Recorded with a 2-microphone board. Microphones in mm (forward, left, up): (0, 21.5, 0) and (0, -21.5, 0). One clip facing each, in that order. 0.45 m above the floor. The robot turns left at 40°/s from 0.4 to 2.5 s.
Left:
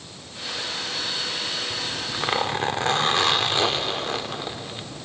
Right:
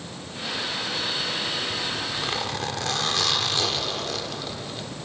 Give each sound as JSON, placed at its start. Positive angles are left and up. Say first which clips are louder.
{"t": 1.7, "sound": "a zipper", "louder": "right 1 dB", "azimuth_deg": 135, "distance_m": 0.8}